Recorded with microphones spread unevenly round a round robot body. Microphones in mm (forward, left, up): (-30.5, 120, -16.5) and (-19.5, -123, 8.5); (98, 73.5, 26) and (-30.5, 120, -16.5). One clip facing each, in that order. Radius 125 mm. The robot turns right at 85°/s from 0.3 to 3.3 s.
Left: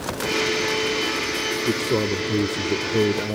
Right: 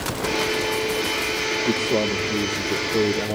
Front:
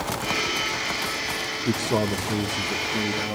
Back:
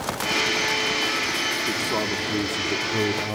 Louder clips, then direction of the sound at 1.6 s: Even, front 5 dB; 35° left.